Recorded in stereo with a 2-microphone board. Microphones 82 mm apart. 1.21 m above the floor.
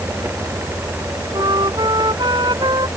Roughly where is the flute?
Right.